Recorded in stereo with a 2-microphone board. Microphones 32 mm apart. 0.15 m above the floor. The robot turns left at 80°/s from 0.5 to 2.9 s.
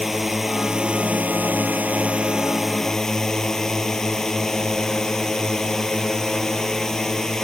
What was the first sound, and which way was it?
A drone, 5° right.